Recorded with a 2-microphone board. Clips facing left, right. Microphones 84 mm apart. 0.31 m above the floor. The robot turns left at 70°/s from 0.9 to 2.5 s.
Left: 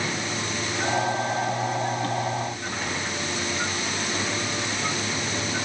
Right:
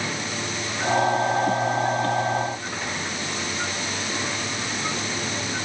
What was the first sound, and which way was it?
Only background noise.